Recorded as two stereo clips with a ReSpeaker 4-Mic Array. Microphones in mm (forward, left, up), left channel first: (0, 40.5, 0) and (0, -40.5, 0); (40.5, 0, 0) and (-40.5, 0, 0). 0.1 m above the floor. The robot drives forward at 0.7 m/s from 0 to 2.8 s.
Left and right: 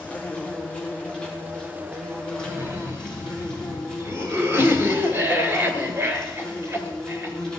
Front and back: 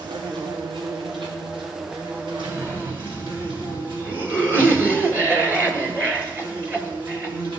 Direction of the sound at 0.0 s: 160° left.